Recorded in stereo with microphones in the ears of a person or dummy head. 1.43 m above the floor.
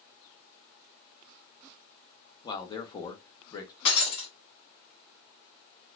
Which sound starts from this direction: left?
Breaking glass, at 3.9 s.